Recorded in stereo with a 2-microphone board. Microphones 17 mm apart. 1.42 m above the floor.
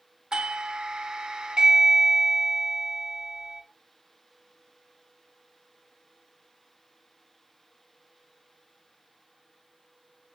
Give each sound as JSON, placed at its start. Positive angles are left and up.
{"t": 0.3, "sound": "a doorbell", "side_deg": -55, "distance_m": 1.0}